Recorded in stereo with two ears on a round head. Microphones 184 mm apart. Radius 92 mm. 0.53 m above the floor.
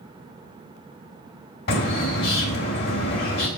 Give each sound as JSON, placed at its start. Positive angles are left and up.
{"t": 1.7, "sound": "a bird", "side_deg": 55, "distance_m": 2.0}